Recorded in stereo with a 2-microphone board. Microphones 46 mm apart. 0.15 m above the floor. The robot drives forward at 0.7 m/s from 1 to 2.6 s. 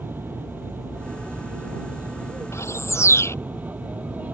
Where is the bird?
75° left (ahead or behind).